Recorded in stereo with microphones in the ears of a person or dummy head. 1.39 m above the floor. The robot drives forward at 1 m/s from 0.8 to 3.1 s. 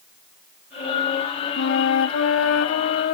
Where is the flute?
65° left (ahead or behind); by 3.1 s 55° left (ahead or behind).